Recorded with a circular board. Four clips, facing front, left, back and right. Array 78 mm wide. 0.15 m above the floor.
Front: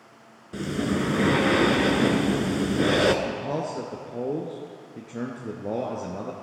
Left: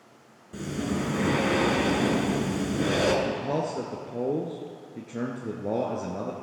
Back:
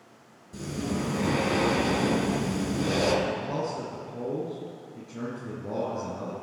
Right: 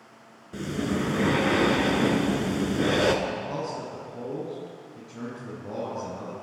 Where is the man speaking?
50° left, 2 m.